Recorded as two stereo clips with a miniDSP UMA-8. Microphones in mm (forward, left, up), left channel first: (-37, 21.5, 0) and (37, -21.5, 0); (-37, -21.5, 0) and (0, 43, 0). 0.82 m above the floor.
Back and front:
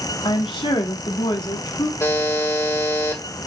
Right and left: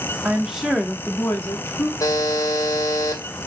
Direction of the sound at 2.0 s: 155° right.